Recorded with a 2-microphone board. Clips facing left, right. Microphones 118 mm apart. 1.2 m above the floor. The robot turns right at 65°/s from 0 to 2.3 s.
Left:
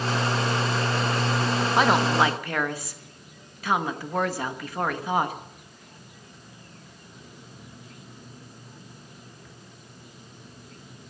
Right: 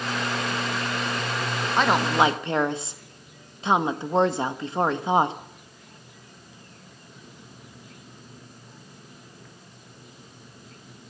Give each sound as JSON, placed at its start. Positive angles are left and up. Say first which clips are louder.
{"t": 1.8, "sound": "a woman speaking", "louder": "right 1 dB", "azimuth_deg": 170, "distance_m": 1.1}